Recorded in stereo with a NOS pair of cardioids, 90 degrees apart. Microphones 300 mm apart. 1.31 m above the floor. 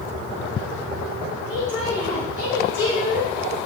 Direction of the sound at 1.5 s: 45° left.